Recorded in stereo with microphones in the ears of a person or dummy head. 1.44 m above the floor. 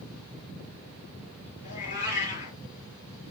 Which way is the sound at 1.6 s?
35° left (ahead or behind).